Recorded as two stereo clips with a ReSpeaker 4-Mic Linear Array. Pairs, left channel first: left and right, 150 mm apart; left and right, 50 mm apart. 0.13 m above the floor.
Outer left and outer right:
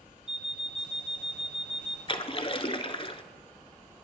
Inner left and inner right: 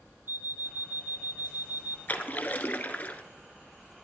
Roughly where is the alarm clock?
Right.